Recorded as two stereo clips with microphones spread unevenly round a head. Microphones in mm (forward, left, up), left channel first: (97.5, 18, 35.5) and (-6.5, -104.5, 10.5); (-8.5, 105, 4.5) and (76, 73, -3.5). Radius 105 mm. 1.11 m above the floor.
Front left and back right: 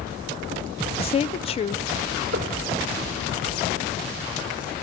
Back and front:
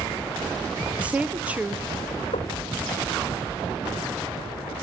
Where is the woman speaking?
25° left, 0.6 m.